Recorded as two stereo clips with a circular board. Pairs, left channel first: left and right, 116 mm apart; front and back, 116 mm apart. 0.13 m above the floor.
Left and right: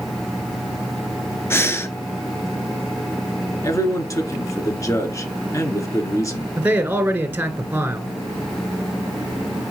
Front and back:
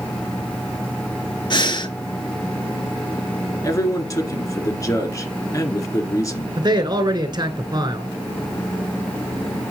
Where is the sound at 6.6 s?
155° right, 1.7 m.